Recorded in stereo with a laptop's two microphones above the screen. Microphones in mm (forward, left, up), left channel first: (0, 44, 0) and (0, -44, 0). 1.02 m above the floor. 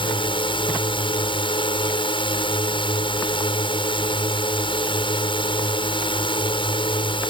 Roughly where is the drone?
Left.